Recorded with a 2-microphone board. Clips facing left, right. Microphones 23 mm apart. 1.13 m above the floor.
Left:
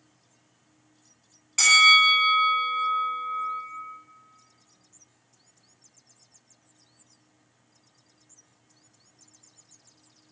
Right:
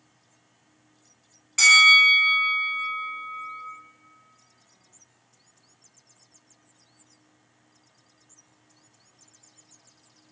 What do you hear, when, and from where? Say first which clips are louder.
1.6 s a bell: right 2 dB; 5° right (ahead or behind), 0.9 m